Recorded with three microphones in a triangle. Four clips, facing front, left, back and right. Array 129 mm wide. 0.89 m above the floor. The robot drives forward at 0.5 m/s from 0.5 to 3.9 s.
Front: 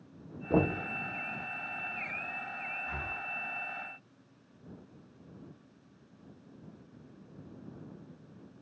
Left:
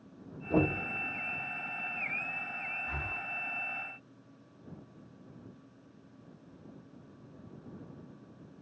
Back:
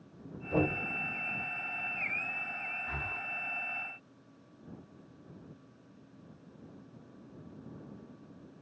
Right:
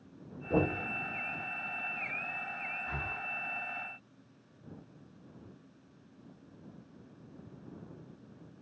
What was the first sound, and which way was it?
Knocking, 10° left.